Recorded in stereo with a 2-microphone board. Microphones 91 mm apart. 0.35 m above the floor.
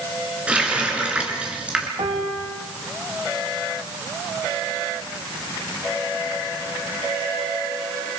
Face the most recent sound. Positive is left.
turn(degrees=-80)